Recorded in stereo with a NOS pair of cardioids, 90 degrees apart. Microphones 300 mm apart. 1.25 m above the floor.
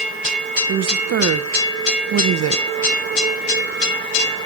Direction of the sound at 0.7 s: 50° right.